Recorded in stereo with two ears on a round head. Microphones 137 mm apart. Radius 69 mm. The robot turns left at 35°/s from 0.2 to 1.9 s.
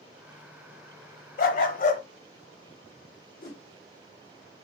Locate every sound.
1.4 s a dog barking: 60° left (ahead or behind), 0.7 m; by 2.0 s 50° left (ahead or behind), 0.7 m
3.4 s a whoosh: 60° left (ahead or behind), 2 m